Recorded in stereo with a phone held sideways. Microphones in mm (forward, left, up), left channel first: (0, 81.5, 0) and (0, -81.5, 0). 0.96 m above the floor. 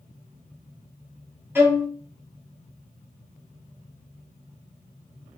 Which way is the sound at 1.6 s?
15° right (ahead or behind).